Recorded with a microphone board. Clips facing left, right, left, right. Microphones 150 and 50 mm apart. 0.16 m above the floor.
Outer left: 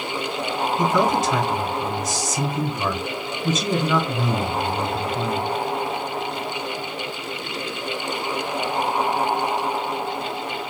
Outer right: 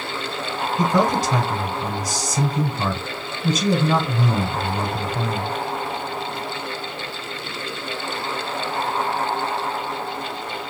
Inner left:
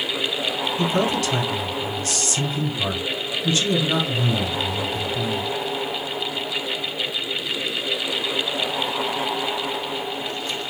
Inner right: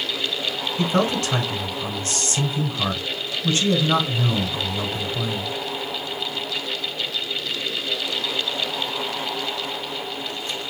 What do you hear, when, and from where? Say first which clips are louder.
0.8 s a man speaking: outer right 1 dB, inner right 1 dB; 35° right (ahead or behind), 1.2 m